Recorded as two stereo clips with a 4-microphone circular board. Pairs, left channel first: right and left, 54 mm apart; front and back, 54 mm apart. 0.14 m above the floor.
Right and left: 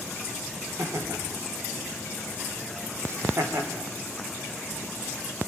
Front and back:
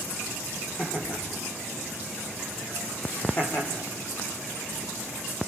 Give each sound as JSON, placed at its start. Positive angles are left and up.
{"t": 0.8, "sound": "laughter", "azimuth_deg": 55, "distance_m": 6.0}